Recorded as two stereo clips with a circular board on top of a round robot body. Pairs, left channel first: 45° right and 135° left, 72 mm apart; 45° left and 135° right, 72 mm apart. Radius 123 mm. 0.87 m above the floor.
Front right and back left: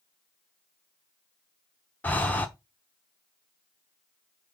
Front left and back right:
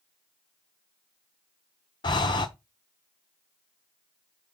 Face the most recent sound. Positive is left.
turn(degrees=25)